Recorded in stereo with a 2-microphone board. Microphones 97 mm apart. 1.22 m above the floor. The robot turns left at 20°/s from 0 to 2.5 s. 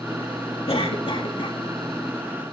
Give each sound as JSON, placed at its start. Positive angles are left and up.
{"t": 0.7, "sound": "a cough", "side_deg": 75, "distance_m": 2.0}